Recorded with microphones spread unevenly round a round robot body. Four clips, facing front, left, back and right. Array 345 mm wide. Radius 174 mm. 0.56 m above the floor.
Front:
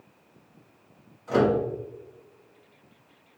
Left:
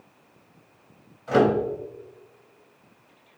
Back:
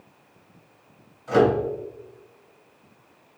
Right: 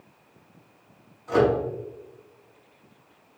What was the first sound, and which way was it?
A microwave, 105° left.